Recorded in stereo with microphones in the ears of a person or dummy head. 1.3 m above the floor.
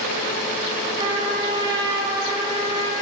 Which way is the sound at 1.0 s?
25° right (ahead or behind).